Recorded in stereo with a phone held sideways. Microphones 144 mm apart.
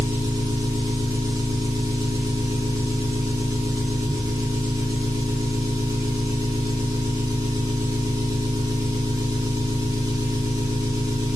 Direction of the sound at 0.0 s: 25° right (ahead or behind).